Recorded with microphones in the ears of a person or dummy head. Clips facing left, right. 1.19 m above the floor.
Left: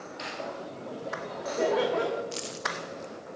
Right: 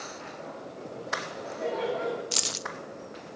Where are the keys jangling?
60° right (ahead or behind), 0.6 m.